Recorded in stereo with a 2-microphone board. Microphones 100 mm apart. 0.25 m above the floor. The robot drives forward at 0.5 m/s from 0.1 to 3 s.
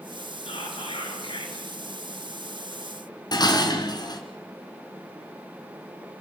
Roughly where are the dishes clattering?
Left.